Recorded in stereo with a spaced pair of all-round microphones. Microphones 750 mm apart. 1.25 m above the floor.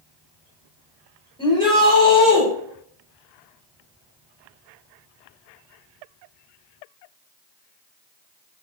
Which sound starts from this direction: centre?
A shout, at 1.4 s.